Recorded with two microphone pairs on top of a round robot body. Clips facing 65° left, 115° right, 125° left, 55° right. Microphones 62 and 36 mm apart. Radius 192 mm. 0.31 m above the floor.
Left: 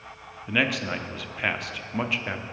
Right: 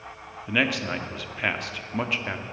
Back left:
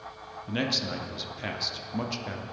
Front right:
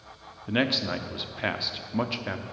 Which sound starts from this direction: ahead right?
A man speaking, at 0.5 s.